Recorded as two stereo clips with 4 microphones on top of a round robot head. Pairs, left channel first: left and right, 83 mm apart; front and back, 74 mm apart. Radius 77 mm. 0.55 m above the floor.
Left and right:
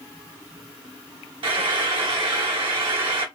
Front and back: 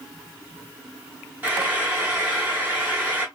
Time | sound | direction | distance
1.4 | frying | 110° right | 1.1 m